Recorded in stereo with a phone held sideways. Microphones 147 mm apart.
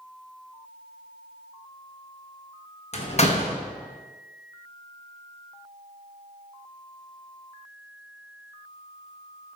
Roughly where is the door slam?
Left.